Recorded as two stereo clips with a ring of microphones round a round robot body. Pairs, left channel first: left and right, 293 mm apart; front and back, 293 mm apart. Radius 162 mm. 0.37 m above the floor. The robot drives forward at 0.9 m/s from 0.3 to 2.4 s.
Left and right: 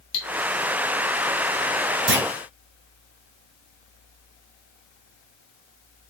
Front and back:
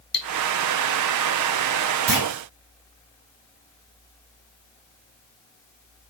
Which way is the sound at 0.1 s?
55° left.